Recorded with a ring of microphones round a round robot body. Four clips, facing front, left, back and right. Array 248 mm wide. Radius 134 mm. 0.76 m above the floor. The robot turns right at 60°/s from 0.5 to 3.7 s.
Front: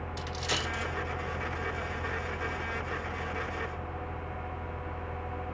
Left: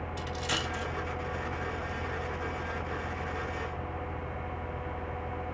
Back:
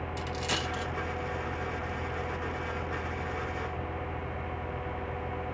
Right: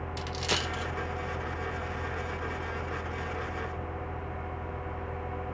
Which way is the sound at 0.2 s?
95° right.